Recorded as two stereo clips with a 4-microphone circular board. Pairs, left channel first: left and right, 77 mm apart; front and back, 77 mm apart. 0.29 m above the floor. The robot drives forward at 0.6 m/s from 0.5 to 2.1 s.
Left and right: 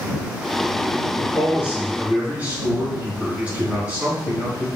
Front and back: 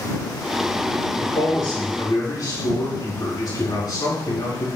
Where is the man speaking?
20° right, 4 m.